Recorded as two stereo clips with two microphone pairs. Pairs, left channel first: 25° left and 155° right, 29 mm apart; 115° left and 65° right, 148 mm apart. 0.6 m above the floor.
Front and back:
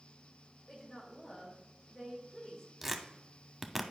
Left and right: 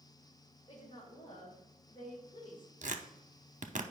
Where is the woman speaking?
75° left, 2.5 m.